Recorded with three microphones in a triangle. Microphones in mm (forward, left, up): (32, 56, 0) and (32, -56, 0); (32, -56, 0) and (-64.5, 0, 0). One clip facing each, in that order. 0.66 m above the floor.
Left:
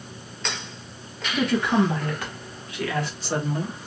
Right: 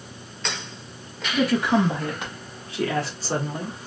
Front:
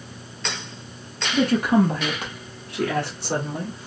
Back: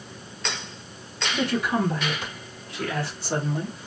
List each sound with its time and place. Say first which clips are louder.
1.3 s a woman speaking: right 1 dB, front 6 dB; straight ahead, 1.5 m; by 3.8 s 50° right, 2 m